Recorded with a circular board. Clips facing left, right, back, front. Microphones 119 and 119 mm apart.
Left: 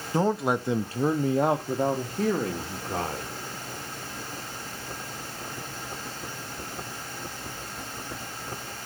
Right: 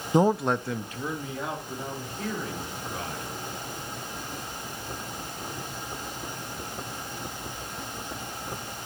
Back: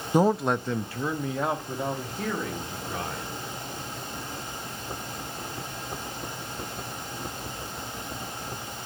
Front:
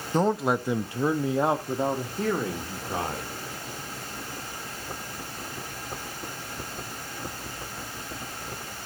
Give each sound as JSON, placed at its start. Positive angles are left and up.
{"t": 0.1, "sound": "a man speaking", "azimuth_deg": -120, "distance_m": 0.5}